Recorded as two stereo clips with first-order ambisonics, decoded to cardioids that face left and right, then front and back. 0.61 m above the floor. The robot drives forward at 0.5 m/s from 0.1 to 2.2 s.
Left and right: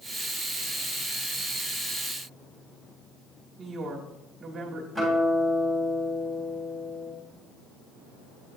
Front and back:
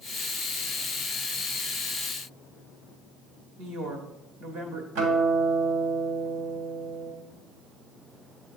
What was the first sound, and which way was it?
A woman speaking, 150° right.